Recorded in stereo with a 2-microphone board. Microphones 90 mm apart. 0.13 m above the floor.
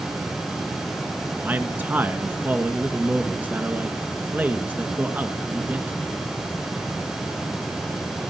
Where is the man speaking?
20° right (ahead or behind), 1.4 m.